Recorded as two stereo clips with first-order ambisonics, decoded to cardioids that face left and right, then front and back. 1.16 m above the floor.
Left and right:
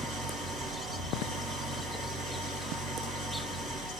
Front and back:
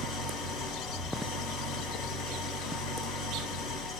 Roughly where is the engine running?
Ahead right.